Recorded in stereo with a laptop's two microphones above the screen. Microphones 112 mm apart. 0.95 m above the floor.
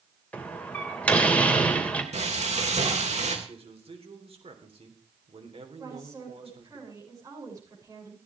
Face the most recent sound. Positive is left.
turn(degrees=-30)  # may be behind; listen again after turning